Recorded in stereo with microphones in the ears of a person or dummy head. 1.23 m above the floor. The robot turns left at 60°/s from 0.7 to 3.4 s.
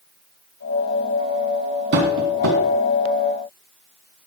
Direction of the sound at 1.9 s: 55° right (ahead or behind).